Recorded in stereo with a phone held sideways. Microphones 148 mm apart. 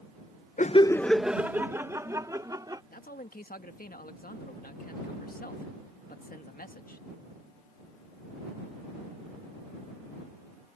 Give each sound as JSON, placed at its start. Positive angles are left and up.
{"t": 0.6, "sound": "laughter", "side_deg": 60}
{"t": 2.9, "sound": "a man speaking", "side_deg": 75}